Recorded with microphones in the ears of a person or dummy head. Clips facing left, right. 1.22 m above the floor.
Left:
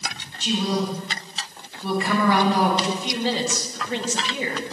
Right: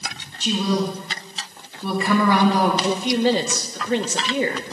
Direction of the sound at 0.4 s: 85° right.